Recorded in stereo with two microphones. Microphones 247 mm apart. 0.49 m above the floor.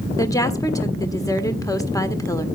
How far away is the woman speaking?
About 1.5 m.